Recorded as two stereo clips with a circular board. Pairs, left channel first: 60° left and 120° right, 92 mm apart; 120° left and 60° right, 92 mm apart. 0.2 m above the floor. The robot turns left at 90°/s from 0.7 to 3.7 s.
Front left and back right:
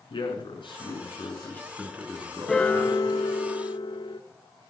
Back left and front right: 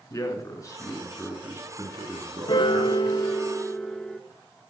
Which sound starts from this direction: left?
A man speaking, at 0.1 s.